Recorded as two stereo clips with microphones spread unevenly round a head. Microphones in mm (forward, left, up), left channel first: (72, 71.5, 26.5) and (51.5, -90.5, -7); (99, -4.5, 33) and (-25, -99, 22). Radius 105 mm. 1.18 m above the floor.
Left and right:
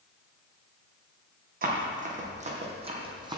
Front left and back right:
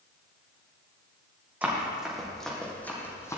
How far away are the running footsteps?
About 2.5 m.